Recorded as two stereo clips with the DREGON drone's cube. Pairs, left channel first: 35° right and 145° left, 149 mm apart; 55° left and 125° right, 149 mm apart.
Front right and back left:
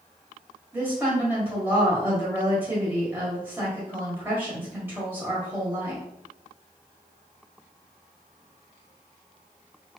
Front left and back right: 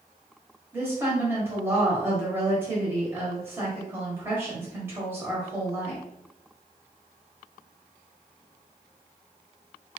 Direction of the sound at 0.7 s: 165° right.